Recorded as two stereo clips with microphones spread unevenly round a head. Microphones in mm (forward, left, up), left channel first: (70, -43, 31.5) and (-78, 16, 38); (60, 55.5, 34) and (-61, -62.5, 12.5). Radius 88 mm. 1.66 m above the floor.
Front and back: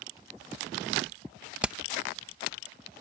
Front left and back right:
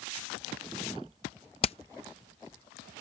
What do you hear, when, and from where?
1.6 s hammering: 80° left